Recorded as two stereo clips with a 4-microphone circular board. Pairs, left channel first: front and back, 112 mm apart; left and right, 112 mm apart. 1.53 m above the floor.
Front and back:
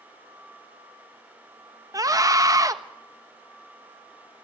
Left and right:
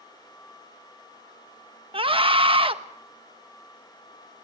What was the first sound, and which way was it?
A scream, 125° right.